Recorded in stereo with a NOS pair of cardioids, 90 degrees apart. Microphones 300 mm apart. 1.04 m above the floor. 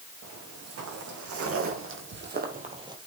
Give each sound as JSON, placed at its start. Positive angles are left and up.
{"t": 0.2, "sound": "footsteps", "azimuth_deg": -60, "distance_m": 4.5}